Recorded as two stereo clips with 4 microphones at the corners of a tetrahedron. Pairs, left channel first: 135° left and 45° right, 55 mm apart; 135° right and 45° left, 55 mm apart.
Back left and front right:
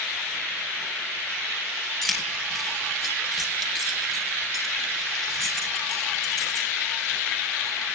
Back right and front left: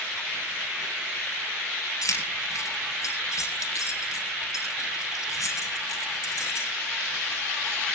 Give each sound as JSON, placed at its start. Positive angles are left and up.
{"t": 2.0, "sound": "keys jangling", "azimuth_deg": -135, "distance_m": 5.0}